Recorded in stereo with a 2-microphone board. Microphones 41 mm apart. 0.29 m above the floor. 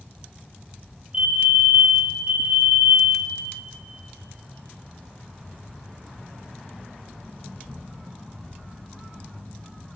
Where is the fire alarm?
25° right (ahead or behind), 2 m.